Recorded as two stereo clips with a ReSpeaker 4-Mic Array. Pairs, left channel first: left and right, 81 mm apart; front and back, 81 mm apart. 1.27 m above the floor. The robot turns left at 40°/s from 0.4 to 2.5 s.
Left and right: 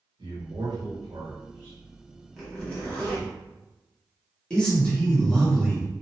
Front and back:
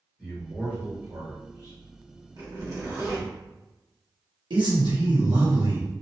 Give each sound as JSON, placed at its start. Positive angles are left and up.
{"t": 0.2, "sound": "a man speaking", "azimuth_deg": -95, "distance_m": 1.4}
{"t": 2.4, "sound": "a zipper", "azimuth_deg": 170, "distance_m": 1.0}
{"t": 4.5, "sound": "a man speaking", "azimuth_deg": 170, "distance_m": 1.1}